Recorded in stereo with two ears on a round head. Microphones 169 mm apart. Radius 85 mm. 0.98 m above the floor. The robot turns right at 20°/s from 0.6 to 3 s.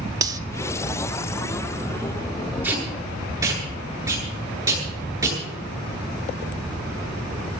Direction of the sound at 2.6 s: 10° right (ahead or behind).